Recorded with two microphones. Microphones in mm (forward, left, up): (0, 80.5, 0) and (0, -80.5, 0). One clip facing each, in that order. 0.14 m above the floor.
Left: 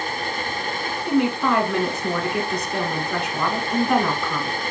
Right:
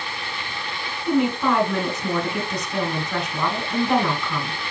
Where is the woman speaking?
Centre (ahead or behind), 1.6 m.